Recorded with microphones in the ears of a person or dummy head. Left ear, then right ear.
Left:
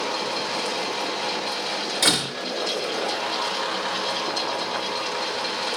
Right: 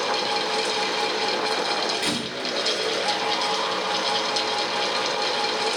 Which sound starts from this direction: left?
A door slam, at 2.0 s.